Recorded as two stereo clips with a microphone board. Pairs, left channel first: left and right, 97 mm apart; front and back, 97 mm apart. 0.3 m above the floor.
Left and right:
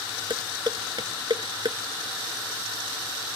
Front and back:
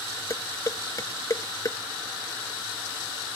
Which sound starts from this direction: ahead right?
Dishes clattering, at 0.3 s.